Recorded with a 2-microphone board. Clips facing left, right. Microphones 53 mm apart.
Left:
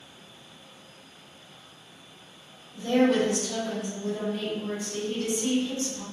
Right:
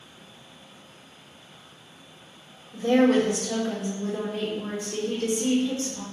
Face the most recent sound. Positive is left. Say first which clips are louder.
# right 3 dB
turn(degrees=-80)